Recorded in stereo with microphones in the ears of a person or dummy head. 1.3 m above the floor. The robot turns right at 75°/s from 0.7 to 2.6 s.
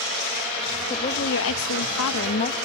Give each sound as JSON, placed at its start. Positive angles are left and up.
{"t": 0.9, "sound": "a woman speaking", "azimuth_deg": 25}